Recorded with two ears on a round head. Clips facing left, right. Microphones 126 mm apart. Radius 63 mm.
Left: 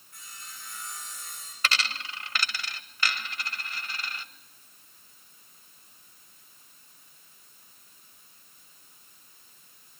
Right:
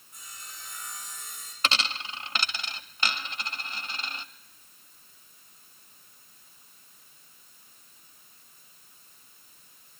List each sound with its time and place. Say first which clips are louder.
0.1 s sawing: even; 20° right (ahead or behind), 8 m
1.6 s a dropped coin: right 1 dB; 20° right (ahead or behind), 0.8 m